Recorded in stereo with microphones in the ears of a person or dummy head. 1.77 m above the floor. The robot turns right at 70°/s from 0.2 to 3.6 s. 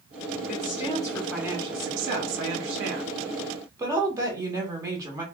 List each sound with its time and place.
0.5 s a woman speaking: 125° left, 0.8 m; by 5.2 s 15° right, 0.8 m